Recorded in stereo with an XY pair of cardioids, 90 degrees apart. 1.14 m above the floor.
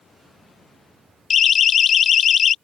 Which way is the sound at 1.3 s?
60° left.